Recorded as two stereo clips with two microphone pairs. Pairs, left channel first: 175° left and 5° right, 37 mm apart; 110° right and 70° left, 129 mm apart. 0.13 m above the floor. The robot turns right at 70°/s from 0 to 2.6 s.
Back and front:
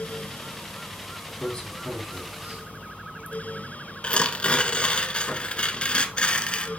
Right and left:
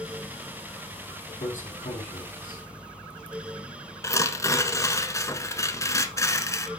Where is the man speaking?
130° right, 4 m; by 2.6 s 45° right, 4 m.